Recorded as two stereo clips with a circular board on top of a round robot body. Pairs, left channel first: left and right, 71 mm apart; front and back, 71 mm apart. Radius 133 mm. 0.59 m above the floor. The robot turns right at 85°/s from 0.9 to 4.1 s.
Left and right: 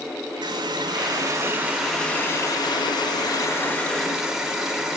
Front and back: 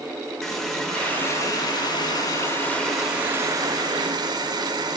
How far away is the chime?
I don't hear a chime.